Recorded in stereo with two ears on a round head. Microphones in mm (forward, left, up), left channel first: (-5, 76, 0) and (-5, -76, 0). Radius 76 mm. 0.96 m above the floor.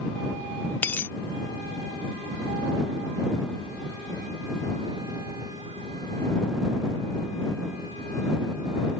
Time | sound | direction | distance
0.8 | a dropped coin | 10° left (ahead or behind) | ?